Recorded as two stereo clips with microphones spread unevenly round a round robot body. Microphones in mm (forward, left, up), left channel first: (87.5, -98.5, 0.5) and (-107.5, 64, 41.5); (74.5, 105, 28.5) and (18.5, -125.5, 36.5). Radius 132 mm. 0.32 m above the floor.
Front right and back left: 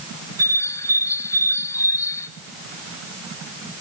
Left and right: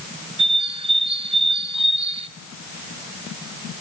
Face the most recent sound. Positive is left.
turn(degrees=-75)